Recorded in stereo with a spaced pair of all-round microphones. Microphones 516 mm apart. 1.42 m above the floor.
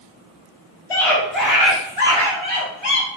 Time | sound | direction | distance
0.9 | a scream | 85° left | 3.5 m